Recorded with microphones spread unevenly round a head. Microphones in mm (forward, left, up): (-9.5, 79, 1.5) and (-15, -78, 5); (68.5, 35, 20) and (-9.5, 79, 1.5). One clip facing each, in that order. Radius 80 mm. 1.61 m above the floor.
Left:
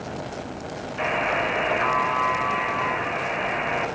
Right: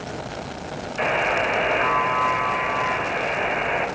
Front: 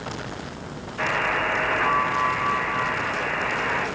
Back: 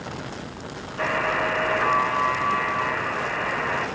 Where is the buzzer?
135° right, 5.5 m.